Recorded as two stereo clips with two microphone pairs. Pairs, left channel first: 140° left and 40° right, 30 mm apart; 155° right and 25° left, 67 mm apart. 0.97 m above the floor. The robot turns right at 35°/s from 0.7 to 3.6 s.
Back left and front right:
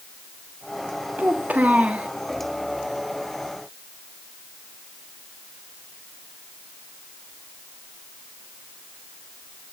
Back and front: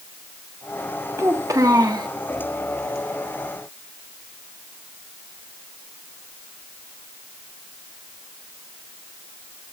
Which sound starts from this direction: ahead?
A child speaking, at 1.2 s.